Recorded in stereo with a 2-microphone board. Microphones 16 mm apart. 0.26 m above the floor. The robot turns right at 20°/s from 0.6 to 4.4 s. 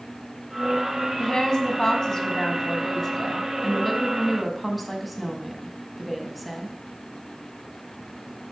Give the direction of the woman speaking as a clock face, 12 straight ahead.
8 o'clock.